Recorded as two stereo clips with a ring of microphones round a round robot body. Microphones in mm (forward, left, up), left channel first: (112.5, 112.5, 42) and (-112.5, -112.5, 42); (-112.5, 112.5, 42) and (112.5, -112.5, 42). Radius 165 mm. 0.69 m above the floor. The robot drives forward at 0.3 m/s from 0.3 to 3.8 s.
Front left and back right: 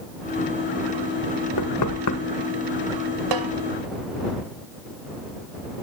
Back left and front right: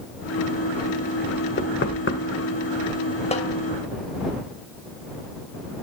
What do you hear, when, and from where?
1.6 s knocking: 75° left, 2 m; by 2.2 s 80° left, 2.0 m
3.3 s a snare drum: 155° right, 2.5 m